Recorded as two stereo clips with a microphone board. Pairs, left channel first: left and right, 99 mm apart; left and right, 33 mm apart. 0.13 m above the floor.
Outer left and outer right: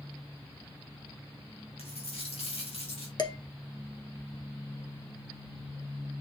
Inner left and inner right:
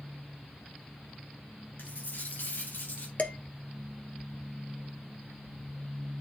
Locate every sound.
1.8 s a dropped coin: 85° left, 3.5 m
3.2 s dishes clattering: 50° left (ahead or behind), 1.6 m